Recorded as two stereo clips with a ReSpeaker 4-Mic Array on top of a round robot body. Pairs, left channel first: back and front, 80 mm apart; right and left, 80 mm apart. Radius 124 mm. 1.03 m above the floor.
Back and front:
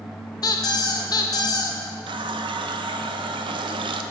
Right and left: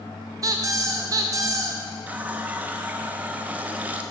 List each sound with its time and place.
0.4 s a squeak: 140° left, 0.5 m
2.1 s a running tap: 15° left, 0.6 m